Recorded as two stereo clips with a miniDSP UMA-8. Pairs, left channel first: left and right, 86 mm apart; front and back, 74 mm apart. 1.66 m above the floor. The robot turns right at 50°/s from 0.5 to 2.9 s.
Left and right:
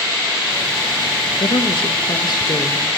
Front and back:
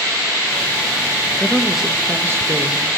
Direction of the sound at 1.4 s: 80° left.